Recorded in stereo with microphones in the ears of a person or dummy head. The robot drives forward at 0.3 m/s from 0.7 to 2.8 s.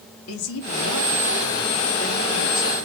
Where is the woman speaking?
80° left, 3 m; by 2.9 s 70° left (ahead or behind), 3 m.